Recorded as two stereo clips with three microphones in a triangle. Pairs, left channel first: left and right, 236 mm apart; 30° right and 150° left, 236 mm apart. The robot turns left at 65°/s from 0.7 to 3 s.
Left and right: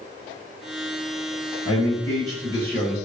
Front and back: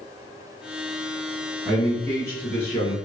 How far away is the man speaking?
About 1.1 m.